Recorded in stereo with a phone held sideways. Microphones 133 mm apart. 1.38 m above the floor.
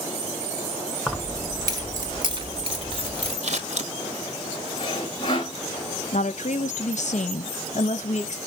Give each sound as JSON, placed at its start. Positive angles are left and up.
{"t": 1.1, "sound": "keys jangling", "side_deg": 0, "distance_m": 0.8}
{"t": 3.4, "sound": "scissors", "side_deg": -55, "distance_m": 1.2}
{"t": 4.8, "sound": "sawing", "side_deg": 40, "distance_m": 2.5}
{"t": 6.1, "sound": "a woman speaking", "side_deg": 60, "distance_m": 1.0}